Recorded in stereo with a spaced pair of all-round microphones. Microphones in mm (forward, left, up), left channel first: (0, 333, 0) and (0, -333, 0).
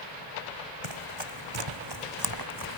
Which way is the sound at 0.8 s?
45° right (ahead or behind).